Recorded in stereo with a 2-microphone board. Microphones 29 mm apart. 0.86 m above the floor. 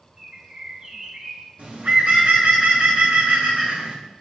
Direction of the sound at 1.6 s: 65° right (ahead or behind).